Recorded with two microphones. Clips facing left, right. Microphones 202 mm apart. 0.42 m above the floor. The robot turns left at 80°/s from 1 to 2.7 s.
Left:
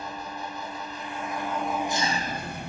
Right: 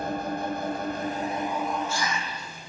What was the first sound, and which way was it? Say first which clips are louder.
An engine running: right 8 dB; 125° right.